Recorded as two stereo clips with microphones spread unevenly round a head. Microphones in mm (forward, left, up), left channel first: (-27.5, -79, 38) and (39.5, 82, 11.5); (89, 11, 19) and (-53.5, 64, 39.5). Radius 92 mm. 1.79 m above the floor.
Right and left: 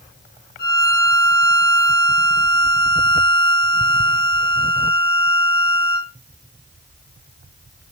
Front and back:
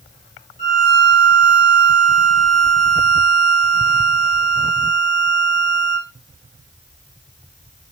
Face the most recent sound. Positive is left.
turn(degrees=-80)